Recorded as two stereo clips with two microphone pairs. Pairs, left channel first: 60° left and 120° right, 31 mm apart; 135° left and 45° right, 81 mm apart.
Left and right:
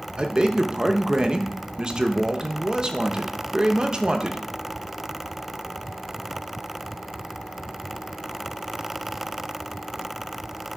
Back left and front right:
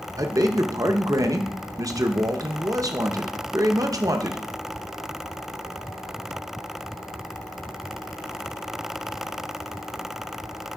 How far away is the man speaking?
About 0.7 m.